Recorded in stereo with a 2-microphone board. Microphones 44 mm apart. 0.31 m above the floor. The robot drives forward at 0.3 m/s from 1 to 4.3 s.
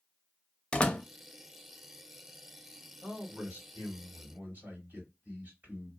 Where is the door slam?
20° left (ahead or behind), 0.6 m.